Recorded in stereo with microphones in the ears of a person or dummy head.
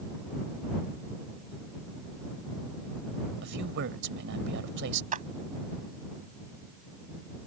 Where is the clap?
40° right (ahead or behind).